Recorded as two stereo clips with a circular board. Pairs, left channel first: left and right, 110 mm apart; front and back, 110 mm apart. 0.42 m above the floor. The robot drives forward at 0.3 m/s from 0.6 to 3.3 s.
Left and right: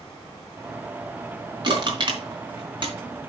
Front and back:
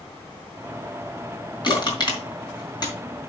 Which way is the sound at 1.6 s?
45° right.